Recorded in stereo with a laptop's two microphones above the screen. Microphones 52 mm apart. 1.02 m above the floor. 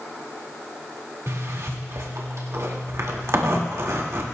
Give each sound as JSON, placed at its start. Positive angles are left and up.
{"t": 1.3, "sound": "a zipper", "side_deg": -70, "distance_m": 2.0}